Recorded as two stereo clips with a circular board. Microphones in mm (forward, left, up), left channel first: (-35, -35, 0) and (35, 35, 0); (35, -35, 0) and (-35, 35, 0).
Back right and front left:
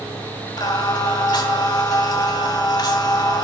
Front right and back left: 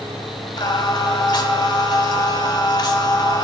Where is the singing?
90° right, 0.8 m.